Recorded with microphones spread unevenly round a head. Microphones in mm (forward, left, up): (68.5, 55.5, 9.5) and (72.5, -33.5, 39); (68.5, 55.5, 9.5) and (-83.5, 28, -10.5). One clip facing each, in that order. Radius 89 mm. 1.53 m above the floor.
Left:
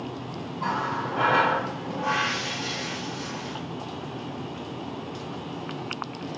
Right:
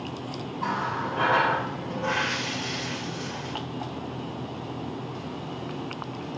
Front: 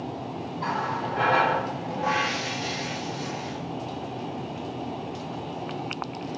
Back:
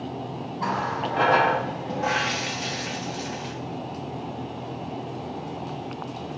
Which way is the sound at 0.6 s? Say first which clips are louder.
Left 1 dB, back 2 dB; 165° left.